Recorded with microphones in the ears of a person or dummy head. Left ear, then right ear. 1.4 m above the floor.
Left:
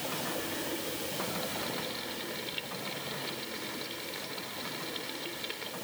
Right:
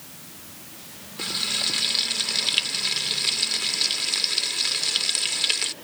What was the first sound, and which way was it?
Frying, 45° right (ahead or behind).